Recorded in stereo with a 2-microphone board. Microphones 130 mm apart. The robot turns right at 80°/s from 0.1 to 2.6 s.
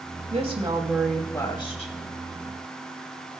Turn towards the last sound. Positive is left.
turn(degrees=120)